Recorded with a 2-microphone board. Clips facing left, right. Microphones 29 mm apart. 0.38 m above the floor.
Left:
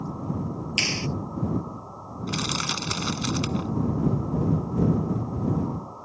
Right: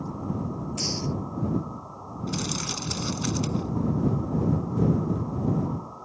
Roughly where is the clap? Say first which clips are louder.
Left 7 dB; left.